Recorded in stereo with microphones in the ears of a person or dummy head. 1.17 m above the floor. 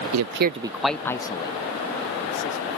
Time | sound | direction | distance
0.1 | a man speaking | 80° right | ?